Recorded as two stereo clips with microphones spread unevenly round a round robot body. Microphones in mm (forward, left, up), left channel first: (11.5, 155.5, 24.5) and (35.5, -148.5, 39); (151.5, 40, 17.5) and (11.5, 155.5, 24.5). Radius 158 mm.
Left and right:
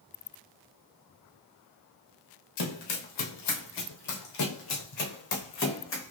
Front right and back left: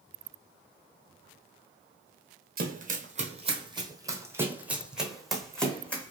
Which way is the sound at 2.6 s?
105° left.